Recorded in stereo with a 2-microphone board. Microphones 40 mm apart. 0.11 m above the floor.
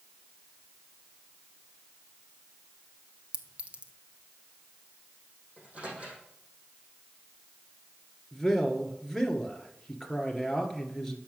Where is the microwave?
30° right (ahead or behind), 5 m.